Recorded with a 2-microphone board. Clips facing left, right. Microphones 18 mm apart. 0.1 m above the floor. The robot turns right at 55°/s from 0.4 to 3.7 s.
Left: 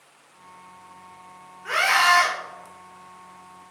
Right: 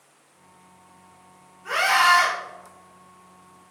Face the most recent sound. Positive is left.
turn(degrees=-170)